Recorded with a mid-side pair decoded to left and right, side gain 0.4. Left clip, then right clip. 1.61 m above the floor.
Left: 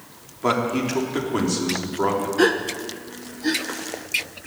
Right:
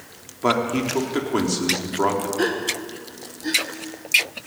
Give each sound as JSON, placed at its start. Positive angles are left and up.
{"t": 0.4, "sound": "a man speaking", "azimuth_deg": -25, "distance_m": 3.5}
{"t": 2.4, "sound": "a gasp", "azimuth_deg": 30, "distance_m": 1.4}